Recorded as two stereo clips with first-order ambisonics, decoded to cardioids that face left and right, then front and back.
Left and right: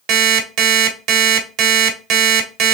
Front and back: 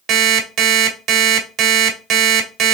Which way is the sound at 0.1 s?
130° right.